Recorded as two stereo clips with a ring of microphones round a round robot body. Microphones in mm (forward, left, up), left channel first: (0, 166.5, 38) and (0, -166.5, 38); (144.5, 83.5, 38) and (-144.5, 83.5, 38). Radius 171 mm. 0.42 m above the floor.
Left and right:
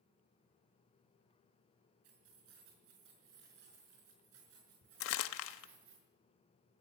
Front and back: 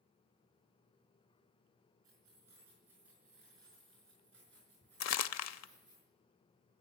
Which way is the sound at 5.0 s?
35° left.